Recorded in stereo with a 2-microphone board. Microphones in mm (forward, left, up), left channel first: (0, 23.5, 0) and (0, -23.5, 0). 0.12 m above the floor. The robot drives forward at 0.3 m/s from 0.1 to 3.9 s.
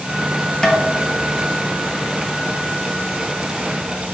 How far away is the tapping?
About 0.7 m.